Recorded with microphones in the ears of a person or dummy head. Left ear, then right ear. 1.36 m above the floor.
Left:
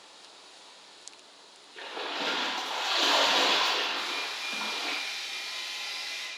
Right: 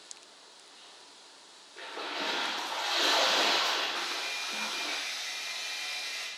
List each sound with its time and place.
1.8 s a splash: 15° left (ahead or behind), 0.9 m
4.0 s a hair dryer: 55° right (ahead or behind), 1.8 m